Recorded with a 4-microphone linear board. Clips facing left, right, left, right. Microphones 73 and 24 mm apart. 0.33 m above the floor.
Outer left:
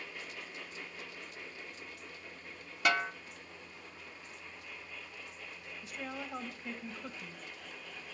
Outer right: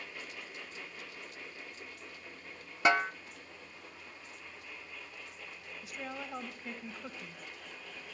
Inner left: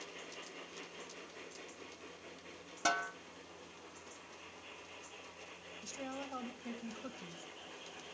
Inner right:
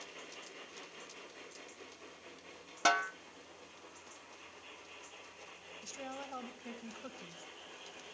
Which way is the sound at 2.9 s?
25° right (ahead or behind).